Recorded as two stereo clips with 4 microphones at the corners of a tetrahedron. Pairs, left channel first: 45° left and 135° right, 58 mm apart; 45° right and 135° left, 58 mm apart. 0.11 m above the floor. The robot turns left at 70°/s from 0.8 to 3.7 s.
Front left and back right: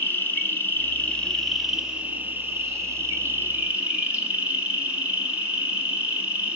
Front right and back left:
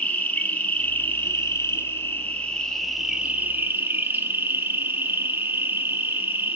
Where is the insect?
10° left, 1.1 m; by 6.5 s 170° left, 1.1 m.